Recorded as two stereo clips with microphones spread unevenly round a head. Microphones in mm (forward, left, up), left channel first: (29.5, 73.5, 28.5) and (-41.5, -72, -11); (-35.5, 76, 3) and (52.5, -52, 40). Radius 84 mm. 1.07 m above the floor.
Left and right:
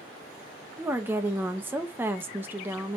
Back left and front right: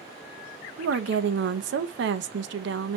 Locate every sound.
0.8 s a woman speaking: 40° right, 0.7 m